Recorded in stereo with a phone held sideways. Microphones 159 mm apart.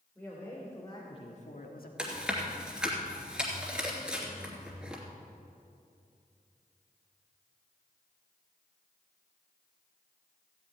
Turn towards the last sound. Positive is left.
turn(degrees=-5)  # may be behind; listen again after turning